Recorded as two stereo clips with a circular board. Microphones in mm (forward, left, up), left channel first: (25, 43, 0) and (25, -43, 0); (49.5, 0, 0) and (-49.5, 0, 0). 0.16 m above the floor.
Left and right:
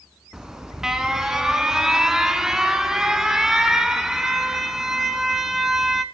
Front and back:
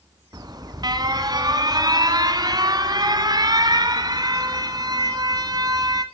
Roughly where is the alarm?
Behind.